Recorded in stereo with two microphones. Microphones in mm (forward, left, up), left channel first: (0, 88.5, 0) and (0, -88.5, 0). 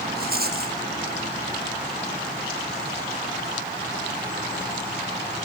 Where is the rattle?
55° right (ahead or behind), 1.9 m.